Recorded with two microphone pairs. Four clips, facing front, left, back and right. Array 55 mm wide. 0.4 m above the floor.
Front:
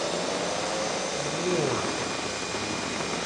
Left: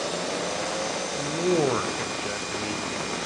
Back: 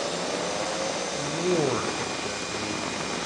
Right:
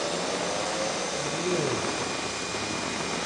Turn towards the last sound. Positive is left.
turn(degrees=100)